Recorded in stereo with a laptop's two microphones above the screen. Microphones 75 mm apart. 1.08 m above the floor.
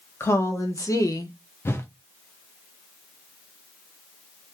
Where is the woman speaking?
35° left (ahead or behind), 1.1 m; by 1.4 s 50° left (ahead or behind), 0.8 m.